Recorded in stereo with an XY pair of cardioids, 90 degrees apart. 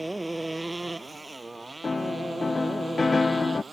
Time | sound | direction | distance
0.0 | a motorcycle | 10° right | ?
1.8 | a piano | 30° left | ?